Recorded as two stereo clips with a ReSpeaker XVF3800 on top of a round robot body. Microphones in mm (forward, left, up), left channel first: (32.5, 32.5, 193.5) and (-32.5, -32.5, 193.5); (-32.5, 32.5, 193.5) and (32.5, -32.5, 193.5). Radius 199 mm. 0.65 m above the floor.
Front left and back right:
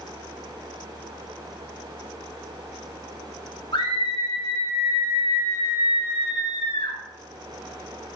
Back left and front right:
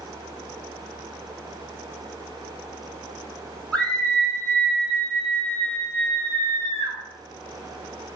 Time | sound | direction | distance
3.7 | a scream | 55° left | 3 m